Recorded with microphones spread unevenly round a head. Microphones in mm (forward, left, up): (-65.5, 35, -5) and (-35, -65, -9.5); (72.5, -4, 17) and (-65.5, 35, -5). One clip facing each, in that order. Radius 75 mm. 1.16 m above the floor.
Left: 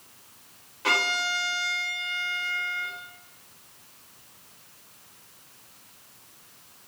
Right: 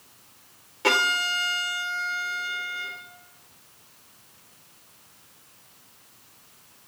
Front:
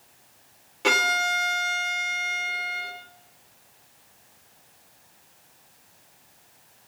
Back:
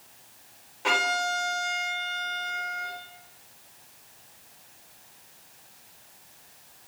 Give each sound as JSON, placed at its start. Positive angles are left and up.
{"t": 0.8, "sound": "a violin", "azimuth_deg": -35, "distance_m": 3.0}